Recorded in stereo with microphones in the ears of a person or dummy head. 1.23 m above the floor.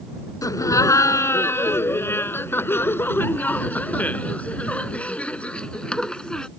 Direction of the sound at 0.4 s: 15° left (ahead or behind).